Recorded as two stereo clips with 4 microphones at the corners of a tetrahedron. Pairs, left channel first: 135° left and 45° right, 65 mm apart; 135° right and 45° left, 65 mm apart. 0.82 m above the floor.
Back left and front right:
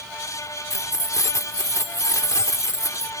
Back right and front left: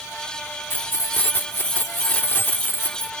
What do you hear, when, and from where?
0.7 s keys jangling: 170° left